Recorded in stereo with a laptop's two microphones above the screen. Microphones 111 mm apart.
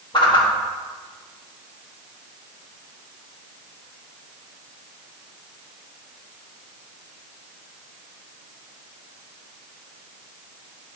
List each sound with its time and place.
0.1 s a whoosh: 40° left (ahead or behind), 1.4 m